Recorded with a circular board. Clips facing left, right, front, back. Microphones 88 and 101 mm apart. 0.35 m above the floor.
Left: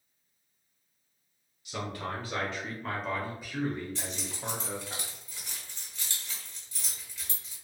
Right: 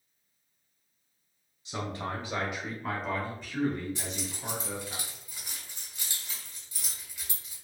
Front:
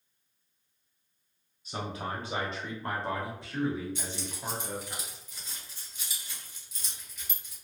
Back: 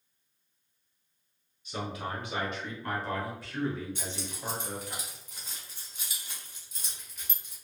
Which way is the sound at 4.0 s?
160° right.